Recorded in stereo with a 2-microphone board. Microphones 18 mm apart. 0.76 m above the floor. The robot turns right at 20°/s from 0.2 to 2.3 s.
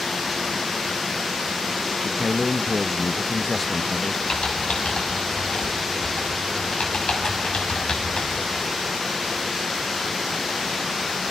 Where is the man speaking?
20° left (ahead or behind), 0.6 m.